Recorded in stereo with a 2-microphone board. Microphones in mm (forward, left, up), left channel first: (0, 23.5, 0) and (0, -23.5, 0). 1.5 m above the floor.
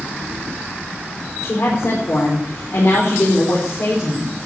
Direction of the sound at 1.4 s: 85° left.